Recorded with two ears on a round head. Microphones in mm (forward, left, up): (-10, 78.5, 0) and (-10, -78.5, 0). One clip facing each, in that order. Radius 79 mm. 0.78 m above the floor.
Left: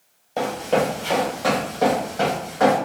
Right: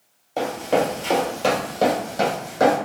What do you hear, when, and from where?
0.4 s running footsteps: centre (ahead or behind), 0.9 m; by 2.8 s 35° right (ahead or behind), 2 m